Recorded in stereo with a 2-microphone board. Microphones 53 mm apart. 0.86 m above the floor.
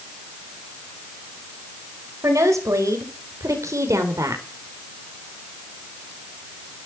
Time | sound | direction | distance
2.2 | a woman speaking | 80° right | 4.5 m